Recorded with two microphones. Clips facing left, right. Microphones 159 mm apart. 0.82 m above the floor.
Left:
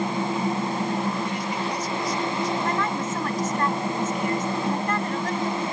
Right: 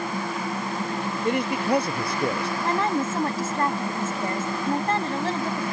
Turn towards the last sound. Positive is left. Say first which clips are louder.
# right 2 dB
turn(degrees=-30)  # may be behind; listen again after turning